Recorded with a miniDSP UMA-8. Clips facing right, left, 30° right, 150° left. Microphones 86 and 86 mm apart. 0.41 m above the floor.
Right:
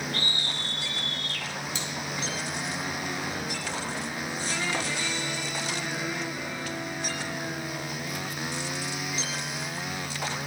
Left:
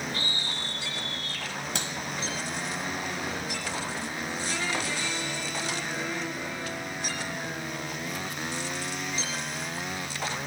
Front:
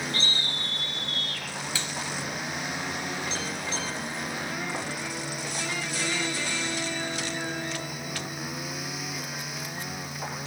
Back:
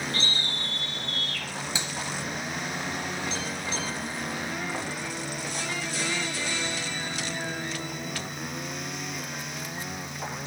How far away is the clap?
About 2.5 m.